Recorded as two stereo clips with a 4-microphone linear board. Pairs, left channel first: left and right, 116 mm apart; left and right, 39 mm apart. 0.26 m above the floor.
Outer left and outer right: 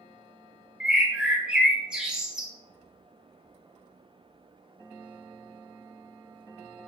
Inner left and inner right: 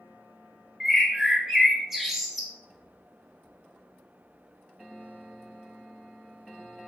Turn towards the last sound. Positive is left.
turn(degrees=-10)  # may be behind; listen again after turning